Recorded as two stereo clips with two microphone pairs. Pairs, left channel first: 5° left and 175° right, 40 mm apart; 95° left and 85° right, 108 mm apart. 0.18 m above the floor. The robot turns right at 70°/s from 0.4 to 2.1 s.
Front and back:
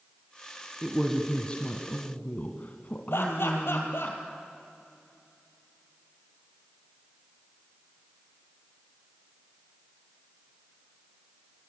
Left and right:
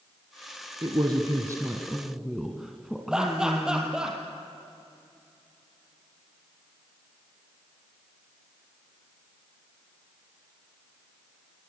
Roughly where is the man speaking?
Right.